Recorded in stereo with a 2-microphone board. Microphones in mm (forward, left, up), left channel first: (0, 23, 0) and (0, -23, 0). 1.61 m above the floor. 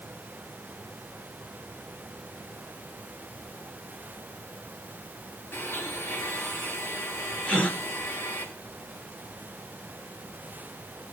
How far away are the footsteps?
I don't hear footsteps.